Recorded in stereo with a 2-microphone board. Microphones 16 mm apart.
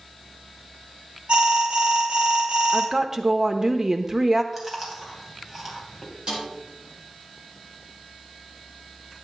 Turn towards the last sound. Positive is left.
turn(degrees=-45)  # may be behind; listen again after turning